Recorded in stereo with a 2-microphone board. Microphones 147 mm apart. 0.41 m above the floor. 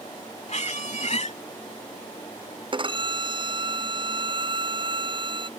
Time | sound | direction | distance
0.5 | a squeak | 50° left (ahead or behind) | ?
2.7 | a violin | 35° right (ahead or behind) | ?